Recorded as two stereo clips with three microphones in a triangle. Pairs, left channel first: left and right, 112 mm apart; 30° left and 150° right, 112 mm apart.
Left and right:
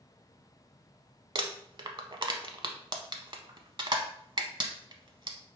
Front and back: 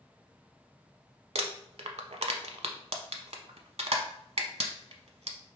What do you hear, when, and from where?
1.4 s crumpling: 135° right, 0.6 m